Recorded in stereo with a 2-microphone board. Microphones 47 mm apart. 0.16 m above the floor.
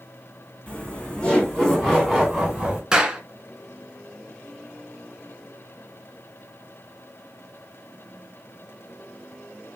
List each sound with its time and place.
0.7 s laughter: 25° left (ahead or behind), 1.9 m; by 2.8 s centre (ahead or behind), 2.0 m
2.9 s a clap: 10° right (ahead or behind), 1.8 m